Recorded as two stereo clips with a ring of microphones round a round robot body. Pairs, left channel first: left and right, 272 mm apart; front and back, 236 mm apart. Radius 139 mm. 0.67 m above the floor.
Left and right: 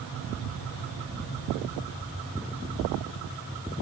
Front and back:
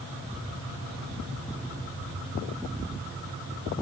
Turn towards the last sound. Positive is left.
No sound to turn to.